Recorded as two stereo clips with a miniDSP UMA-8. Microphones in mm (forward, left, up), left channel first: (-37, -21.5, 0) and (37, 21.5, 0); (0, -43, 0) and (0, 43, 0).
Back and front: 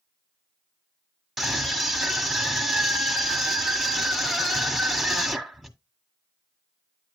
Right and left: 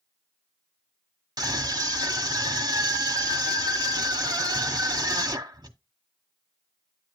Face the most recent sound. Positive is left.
turn(degrees=120)